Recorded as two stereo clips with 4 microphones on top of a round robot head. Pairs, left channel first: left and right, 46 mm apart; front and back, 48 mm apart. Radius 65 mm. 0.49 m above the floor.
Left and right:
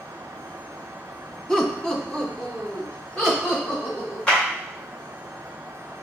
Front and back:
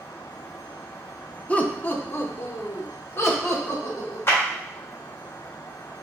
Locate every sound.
1.5 s laughter: 30° left, 0.8 m; by 4.2 s 10° left, 2.5 m
4.3 s a clap: 20° left, 2 m